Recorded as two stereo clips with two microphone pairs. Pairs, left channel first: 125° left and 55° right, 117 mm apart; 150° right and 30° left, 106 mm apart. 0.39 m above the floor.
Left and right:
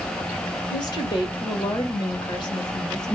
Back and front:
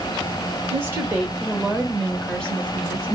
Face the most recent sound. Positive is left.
turn(degrees=155)